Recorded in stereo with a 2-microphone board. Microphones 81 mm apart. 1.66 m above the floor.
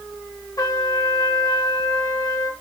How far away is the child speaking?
I don't hear a child speaking.